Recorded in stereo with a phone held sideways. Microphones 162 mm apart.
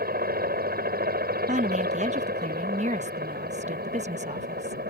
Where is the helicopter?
70° right (ahead or behind); by 4.9 s 75° right (ahead or behind).